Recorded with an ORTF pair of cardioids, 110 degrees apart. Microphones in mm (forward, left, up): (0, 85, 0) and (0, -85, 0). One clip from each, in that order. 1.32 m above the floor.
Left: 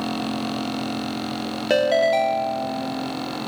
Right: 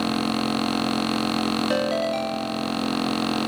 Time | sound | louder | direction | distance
1.7 | a ringtone | left 9 dB | 25° left | 0.5 m